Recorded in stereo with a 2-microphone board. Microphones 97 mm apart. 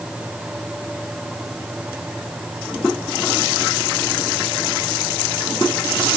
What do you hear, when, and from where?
Only background noise.